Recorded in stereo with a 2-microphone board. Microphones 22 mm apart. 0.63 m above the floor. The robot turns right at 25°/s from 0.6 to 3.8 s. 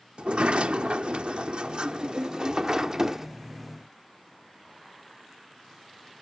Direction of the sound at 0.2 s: 95° right.